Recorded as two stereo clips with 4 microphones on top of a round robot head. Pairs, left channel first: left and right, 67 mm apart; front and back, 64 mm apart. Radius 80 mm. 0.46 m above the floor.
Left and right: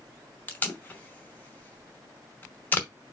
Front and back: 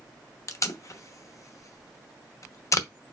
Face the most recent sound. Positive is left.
turn(degrees=30)